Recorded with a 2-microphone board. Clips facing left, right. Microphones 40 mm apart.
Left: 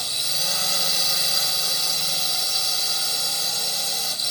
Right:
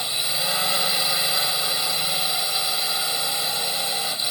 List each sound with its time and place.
0.0 s a drone: 20° right (ahead or behind)